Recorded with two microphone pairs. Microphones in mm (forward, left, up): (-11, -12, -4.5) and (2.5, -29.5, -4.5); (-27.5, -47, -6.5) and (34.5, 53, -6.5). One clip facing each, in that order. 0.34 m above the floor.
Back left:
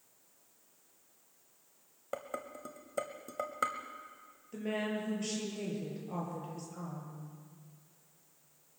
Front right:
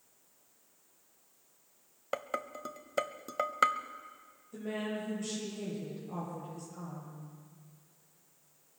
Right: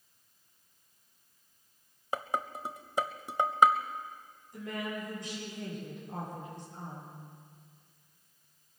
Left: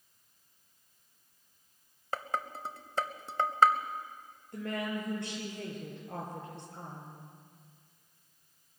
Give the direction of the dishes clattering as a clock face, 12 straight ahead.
2 o'clock.